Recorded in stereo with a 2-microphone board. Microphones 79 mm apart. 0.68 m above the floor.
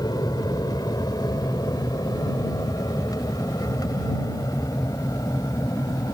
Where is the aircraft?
55° left (ahead or behind); by 6.1 s 50° left (ahead or behind).